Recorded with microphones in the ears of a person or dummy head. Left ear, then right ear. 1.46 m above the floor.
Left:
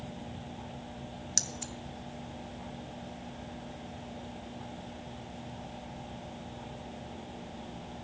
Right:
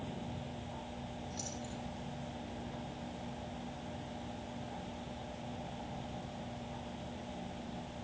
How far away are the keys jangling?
About 0.9 m.